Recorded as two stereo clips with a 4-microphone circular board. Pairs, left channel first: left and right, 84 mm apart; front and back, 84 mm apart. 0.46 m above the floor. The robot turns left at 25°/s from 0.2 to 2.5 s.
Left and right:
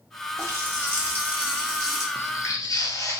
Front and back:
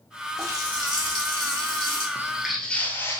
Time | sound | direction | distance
0.4 | a running tap | 135° right | 1.3 m
2.1 | footsteps | 135° left | 0.5 m